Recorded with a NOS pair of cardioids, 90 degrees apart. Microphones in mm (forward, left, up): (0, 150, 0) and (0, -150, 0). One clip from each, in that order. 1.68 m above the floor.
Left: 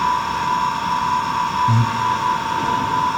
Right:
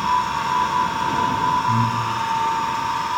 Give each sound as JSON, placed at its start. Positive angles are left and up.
{"t": 1.7, "sound": "breathing", "azimuth_deg": 55, "distance_m": 4.5}